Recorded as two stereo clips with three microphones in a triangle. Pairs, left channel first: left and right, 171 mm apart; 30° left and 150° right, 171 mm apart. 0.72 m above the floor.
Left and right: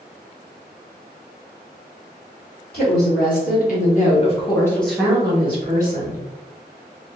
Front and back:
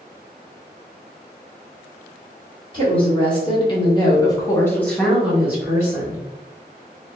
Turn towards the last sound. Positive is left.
turn(degrees=-85)